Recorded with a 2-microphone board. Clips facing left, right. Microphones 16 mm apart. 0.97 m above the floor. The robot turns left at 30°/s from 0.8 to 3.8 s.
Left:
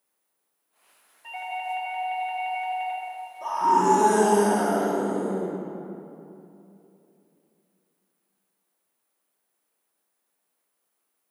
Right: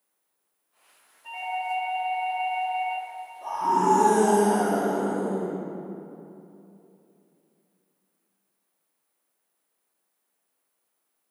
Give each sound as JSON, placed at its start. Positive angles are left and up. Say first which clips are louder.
{"t": 1.2, "sound": "a doorbell", "louder": "right 2 dB", "azimuth_deg": 140, "distance_m": 2.5}
{"t": 3.4, "sound": "a scream", "louder": "left 2 dB", "side_deg": 80, "distance_m": 1.4}